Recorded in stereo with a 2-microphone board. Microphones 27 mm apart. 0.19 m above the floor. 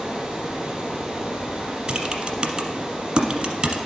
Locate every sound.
0.0 s running water: 35° right (ahead or behind), 1.4 m
1.9 s typing on a keyboard: 40° right (ahead or behind), 0.9 m